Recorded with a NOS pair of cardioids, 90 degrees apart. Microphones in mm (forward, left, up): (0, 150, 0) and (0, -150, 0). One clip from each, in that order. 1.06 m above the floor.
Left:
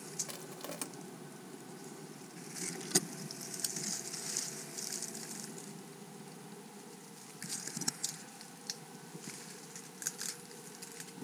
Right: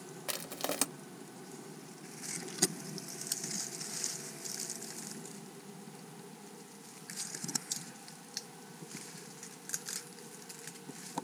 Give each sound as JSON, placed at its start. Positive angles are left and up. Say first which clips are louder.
{"t": 0.3, "sound": "crushing", "louder": "right 7 dB", "azimuth_deg": -50, "distance_m": 0.8}